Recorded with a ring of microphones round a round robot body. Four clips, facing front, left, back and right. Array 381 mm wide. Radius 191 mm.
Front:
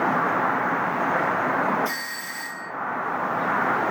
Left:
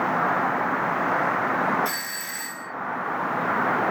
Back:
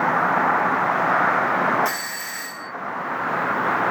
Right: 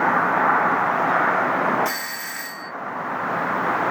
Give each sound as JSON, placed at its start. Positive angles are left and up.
{"t": 1.9, "sound": "a doorbell", "azimuth_deg": -155, "distance_m": 3.5}